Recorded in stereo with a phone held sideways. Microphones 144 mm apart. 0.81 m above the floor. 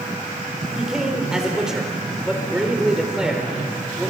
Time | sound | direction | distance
0.8 | a man speaking | 5° right (ahead or behind) | 2.5 m